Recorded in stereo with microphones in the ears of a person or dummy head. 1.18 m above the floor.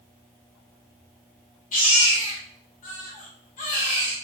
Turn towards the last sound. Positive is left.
turn(degrees=45)  # may be behind; listen again after turning